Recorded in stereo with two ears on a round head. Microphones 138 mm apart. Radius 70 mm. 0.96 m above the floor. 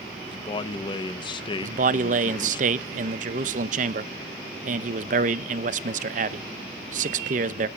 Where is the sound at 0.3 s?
30° left (ahead or behind), 0.7 m.